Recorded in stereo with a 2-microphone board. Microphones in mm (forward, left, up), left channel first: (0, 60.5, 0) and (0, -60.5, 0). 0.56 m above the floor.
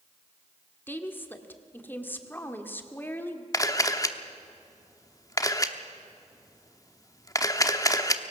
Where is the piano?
No piano in this recording.